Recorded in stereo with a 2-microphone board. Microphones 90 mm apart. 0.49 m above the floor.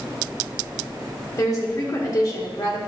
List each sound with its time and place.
1.4 s a woman speaking: 40° left (ahead or behind), 1.3 m